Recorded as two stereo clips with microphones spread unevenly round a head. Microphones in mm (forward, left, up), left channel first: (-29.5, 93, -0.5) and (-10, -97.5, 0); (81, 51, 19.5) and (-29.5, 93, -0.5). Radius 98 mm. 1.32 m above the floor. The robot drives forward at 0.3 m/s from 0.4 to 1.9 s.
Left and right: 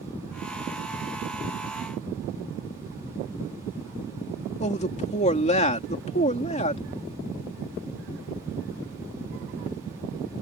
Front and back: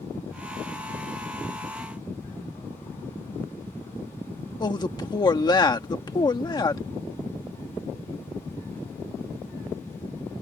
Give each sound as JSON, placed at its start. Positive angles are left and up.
{"t": 4.6, "sound": "a man speaking", "azimuth_deg": 35}